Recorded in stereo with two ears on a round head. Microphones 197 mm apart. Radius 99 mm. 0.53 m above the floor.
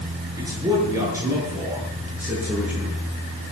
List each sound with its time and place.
0.4 s a man speaking: 15° right (ahead or behind), 8.5 m; by 3.0 s 5° right (ahead or behind), 8.5 m